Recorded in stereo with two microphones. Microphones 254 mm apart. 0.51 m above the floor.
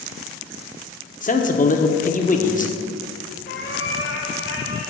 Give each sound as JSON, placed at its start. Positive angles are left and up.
{"t": 1.2, "sound": "a man speaking", "side_deg": 30, "distance_m": 0.7}
{"t": 3.5, "sound": "a cat meowing", "side_deg": 50, "distance_m": 1.0}